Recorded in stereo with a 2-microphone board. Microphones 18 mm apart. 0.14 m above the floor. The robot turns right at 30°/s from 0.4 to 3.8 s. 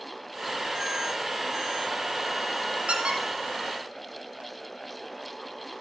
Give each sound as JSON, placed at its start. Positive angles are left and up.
{"t": 2.9, "sound": "a squeak", "side_deg": -65, "distance_m": 2.0}